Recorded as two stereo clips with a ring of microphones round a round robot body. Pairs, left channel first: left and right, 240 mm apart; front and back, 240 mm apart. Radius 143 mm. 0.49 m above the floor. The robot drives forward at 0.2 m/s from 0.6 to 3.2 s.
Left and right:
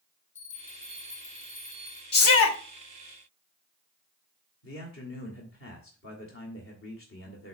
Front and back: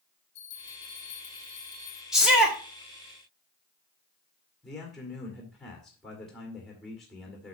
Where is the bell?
30° left, 2 m; by 2.0 s 35° left, 1.9 m.